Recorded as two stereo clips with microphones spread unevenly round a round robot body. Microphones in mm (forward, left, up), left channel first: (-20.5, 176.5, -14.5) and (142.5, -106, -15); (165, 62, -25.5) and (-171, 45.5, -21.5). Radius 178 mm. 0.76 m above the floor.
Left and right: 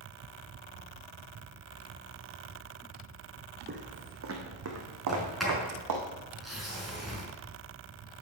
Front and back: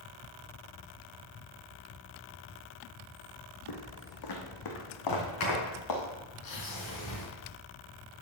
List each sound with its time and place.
3.7 s footsteps: straight ahead, 1.8 m; by 6.0 s 35° right, 2.5 m
5.1 s a sliding door: 30° left, 5 m